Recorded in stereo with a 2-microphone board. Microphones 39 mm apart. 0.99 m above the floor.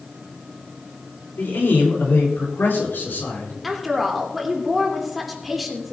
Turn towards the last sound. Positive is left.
turn(degrees=0)  # may be behind; listen again after turning